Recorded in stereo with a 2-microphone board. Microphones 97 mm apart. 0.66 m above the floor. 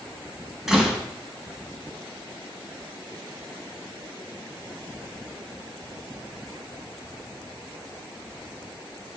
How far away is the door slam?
About 4 m.